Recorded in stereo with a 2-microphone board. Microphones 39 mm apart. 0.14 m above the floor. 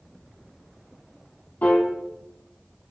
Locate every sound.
1.6 s a piano: 45° left (ahead or behind), 1.0 m